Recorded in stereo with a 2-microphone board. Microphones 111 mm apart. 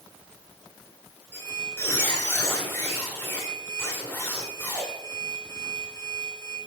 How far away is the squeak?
About 5 m.